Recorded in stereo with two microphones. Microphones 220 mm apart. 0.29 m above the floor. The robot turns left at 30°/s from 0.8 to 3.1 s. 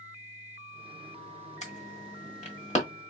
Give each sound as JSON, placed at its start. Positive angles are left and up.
{"t": 1.6, "sound": "an alarm", "side_deg": 30, "distance_m": 1.4}